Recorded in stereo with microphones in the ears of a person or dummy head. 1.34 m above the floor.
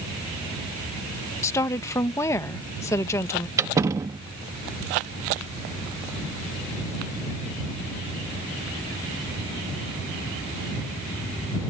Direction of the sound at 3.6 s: 20° right (ahead or behind).